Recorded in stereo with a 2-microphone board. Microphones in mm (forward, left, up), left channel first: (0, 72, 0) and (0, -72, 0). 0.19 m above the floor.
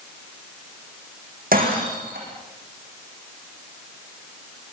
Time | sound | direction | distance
1.5 | breaking glass | 85° right | 8 m